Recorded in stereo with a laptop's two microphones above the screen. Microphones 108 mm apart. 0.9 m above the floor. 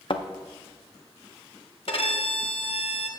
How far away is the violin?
About 1.1 m.